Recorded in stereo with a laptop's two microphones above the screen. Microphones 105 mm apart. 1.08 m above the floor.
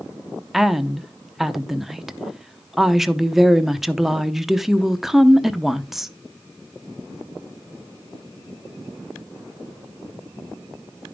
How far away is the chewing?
I don't hear chewing.